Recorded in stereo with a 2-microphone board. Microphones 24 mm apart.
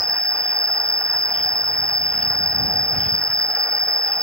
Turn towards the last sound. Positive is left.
turn(degrees=50)  # may be behind; listen again after turning